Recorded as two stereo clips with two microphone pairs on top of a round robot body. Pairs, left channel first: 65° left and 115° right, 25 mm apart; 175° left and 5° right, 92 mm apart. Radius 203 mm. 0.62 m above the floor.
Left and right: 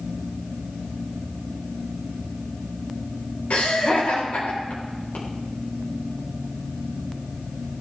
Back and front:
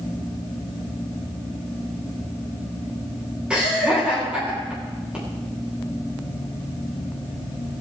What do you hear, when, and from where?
3.5 s laughter: 75° left, 3.5 m